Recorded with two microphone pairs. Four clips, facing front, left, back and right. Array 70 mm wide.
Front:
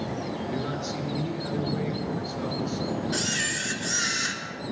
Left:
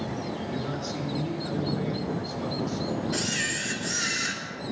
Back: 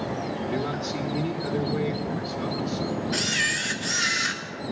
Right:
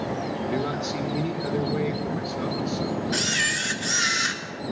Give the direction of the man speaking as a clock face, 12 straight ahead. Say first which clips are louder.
Right 5 dB, back 2 dB; 3 o'clock.